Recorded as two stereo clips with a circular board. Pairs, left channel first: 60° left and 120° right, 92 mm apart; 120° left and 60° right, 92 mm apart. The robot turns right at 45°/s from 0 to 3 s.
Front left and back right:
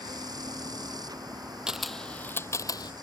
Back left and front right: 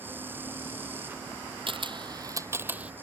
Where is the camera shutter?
40° right; by 2.9 s 20° left.